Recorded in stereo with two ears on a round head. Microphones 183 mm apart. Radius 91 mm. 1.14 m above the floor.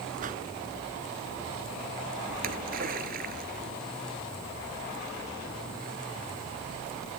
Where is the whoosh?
40° right (ahead or behind).